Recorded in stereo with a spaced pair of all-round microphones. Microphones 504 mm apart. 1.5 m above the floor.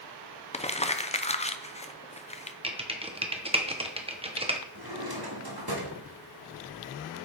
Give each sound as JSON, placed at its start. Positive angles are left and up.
{"t": 0.5, "sound": "crumpling", "side_deg": 15, "distance_m": 0.6}
{"t": 2.6, "sound": "typing on a keyboard", "side_deg": -10, "distance_m": 1.1}
{"t": 4.8, "sound": "a drawer", "side_deg": -45, "distance_m": 1.7}